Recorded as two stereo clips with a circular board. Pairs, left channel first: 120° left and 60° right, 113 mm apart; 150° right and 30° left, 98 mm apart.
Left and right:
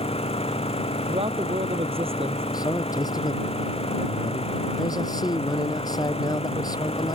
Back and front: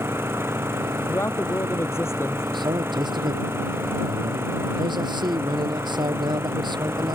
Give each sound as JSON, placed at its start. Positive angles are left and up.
{"t": 0.0, "sound": "an engine running", "azimuth_deg": 95}
{"t": 1.1, "sound": "a man speaking", "azimuth_deg": -90}
{"t": 2.5, "sound": "a man speaking", "azimuth_deg": 65}